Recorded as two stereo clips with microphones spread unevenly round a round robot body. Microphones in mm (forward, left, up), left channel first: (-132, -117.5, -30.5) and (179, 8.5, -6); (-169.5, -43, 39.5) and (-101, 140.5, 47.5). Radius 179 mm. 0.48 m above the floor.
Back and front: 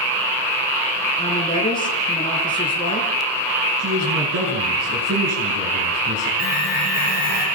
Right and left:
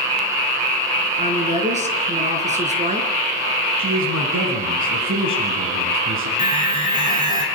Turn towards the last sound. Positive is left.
turn(degrees=135)